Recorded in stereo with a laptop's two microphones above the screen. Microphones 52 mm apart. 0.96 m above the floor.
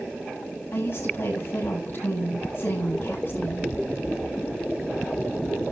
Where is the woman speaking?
50° left (ahead or behind), 7 m.